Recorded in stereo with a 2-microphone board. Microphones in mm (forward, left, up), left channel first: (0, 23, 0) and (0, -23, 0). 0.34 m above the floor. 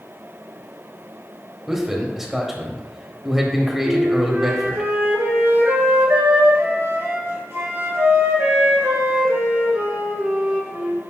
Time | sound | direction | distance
1.7 | a man speaking | 10° right (ahead or behind) | 1.6 m
3.8 | a flute | 75° right (ahead or behind) | 3 m